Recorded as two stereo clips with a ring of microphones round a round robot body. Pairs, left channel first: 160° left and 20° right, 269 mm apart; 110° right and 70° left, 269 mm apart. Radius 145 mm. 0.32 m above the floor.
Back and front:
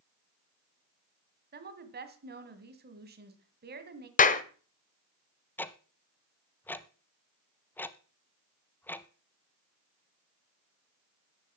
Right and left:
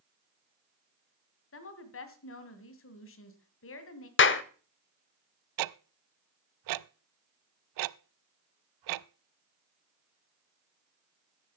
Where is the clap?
145° right, 1.1 m.